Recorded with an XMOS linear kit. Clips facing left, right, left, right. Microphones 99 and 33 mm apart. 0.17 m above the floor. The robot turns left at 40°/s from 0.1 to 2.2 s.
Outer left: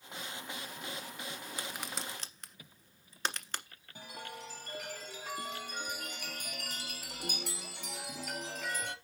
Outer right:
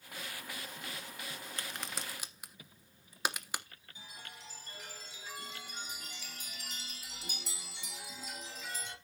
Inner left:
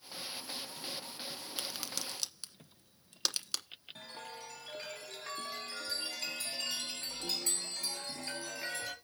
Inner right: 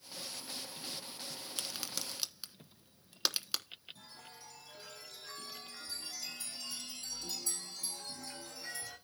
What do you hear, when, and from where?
1.6 s a crack: 10° left (ahead or behind), 1.3 m; by 3.6 s 10° right (ahead or behind), 1.3 m
4.0 s a chime: 65° left (ahead or behind), 3 m